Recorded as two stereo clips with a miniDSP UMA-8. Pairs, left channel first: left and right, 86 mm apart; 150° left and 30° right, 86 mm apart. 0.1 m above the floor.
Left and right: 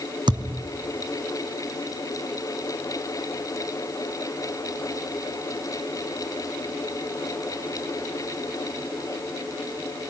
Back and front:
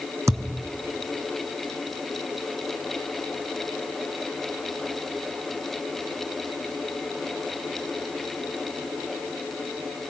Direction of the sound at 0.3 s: 80° right.